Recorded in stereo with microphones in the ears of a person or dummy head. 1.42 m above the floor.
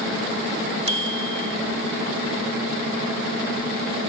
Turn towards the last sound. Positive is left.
turn(degrees=-35)  # may be behind; listen again after turning